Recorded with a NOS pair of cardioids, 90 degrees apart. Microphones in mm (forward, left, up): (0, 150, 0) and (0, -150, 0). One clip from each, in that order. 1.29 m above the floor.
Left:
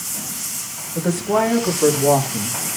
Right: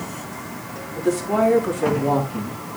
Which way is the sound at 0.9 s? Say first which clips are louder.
Left 1 dB; 40° left.